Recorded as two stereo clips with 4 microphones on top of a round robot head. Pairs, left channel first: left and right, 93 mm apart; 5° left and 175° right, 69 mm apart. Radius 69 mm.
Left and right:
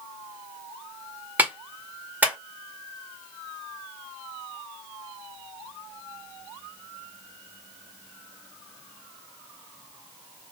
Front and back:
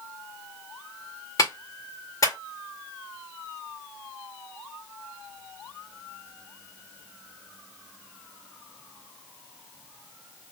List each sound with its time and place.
1.4 s a clap: 20° right, 1.9 m